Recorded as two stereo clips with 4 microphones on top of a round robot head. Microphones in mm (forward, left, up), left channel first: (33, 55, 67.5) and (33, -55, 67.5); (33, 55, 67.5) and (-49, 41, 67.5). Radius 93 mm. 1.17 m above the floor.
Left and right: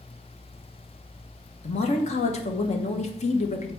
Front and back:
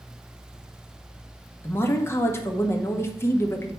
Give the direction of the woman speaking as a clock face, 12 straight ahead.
10 o'clock.